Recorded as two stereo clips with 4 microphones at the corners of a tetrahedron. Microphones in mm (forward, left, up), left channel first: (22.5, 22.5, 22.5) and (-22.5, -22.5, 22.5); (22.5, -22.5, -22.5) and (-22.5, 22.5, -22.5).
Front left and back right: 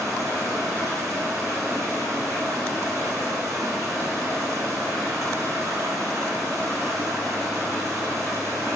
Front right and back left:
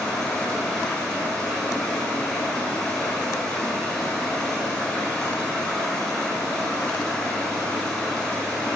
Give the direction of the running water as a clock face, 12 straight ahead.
4 o'clock.